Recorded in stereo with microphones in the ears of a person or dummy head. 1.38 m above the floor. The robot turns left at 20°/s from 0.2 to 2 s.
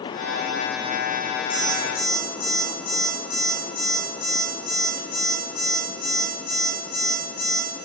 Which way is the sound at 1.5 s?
50° left (ahead or behind).